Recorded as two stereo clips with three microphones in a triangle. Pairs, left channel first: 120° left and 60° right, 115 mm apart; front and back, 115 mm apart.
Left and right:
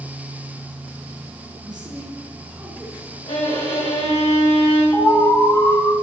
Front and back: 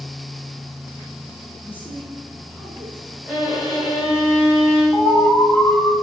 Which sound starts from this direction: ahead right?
A man speaking, at 1.6 s.